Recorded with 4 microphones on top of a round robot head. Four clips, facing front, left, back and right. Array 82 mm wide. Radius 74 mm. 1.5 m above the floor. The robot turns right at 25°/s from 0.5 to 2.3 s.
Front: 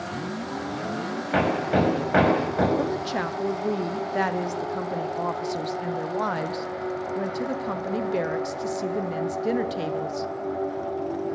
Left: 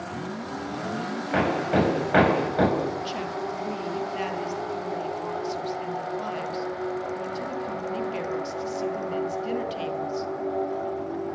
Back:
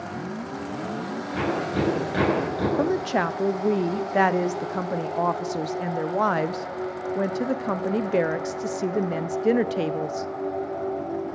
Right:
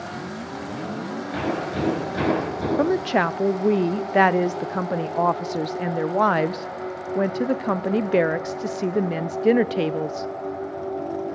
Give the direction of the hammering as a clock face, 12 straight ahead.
11 o'clock.